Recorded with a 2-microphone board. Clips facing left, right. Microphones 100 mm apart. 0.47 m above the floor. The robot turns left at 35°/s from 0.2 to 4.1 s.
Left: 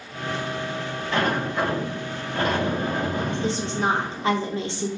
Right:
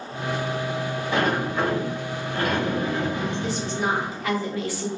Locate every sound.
1.1 s a sliding door: 160° right, 2.0 m; by 4.4 s 95° left, 2.0 m
3.4 s a woman speaking: 25° left (ahead or behind), 0.9 m